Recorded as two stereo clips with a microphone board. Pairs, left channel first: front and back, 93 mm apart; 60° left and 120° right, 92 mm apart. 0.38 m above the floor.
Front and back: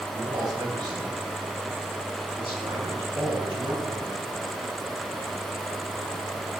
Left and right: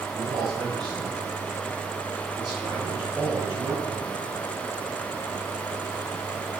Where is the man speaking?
140° right, 3.5 m; by 4.3 s 170° right, 5.5 m.